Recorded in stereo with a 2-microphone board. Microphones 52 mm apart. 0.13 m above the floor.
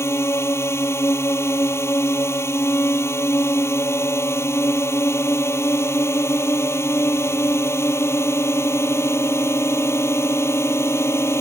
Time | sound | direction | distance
0.0 | a drone | 65° left (ahead or behind) | ?